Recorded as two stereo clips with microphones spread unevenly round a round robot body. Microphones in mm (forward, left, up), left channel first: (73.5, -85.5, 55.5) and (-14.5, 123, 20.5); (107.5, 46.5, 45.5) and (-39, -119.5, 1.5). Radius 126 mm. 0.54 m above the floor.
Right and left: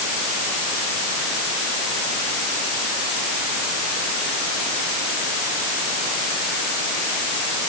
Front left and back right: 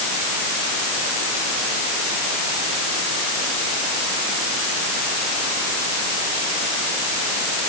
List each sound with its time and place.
Only background noise.